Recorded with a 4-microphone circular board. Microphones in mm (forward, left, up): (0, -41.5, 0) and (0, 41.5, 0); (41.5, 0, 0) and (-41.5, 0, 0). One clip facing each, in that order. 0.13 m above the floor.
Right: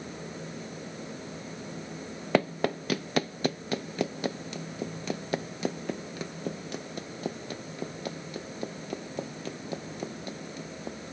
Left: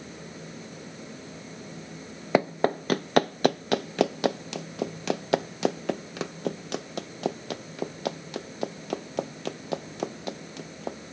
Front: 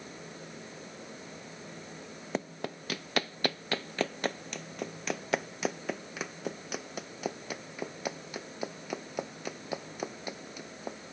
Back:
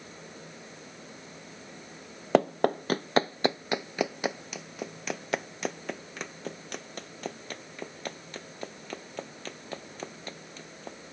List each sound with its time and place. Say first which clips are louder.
2.3 s running footsteps: left 3 dB, back 13 dB; 165° left; by 11.0 s 80° left